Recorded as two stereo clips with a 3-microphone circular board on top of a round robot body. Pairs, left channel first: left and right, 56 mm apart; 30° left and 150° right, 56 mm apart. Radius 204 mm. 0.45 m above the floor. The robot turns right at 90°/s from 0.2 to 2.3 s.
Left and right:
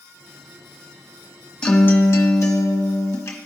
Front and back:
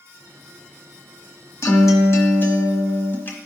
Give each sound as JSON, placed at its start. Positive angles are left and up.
{"t": 1.6, "sound": "a guitar", "azimuth_deg": 15, "distance_m": 1.4}